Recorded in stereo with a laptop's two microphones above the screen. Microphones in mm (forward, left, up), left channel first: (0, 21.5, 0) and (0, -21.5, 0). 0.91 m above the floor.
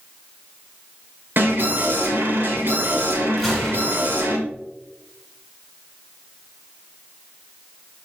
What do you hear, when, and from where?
1.4 s an alarm: 55° right (ahead or behind), 2.5 m
3.4 s a gunshot: 5° right (ahead or behind), 3 m